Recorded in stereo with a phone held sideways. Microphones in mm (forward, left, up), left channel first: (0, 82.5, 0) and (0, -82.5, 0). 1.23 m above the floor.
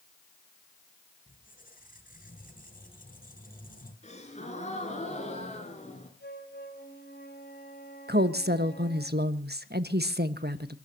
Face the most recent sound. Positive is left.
turn(degrees=-80)